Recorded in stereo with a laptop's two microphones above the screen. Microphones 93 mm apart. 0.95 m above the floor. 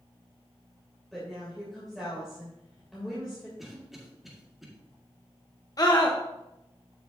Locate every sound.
1.1 s a woman speaking: centre (ahead or behind), 3 m
3.6 s a cough: centre (ahead or behind), 1.9 m
5.8 s a scream: 40° left (ahead or behind), 0.9 m